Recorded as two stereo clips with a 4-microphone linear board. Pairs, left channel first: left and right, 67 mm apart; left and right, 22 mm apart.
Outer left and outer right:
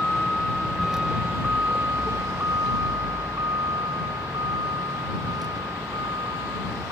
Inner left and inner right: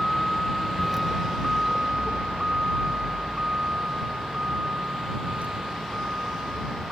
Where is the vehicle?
15° left (ahead or behind); by 6.9 s 80° right.